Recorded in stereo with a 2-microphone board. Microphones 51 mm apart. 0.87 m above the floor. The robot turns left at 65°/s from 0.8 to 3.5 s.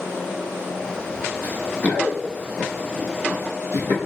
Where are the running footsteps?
35° left (ahead or behind), 1.0 m; by 4.0 s 50° left (ahead or behind), 1.7 m.